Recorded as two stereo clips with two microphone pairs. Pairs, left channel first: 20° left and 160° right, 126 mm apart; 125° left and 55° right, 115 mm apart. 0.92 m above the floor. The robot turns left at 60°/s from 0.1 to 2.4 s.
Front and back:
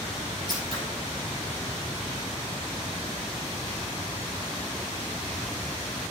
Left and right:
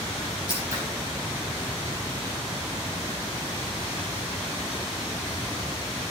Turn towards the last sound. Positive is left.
turn(degrees=140)